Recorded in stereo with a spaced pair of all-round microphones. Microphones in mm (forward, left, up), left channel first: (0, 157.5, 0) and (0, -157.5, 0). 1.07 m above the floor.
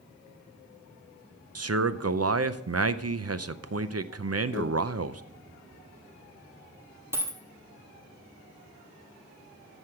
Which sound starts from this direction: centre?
A dropped coin, at 7.1 s.